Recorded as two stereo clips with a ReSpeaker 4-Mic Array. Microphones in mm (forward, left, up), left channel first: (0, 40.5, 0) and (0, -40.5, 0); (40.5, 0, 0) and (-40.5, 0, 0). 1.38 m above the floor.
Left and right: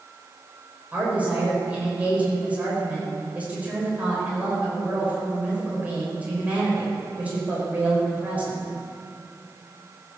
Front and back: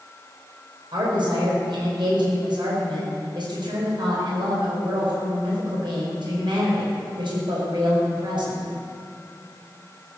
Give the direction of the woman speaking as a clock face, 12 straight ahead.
5 o'clock.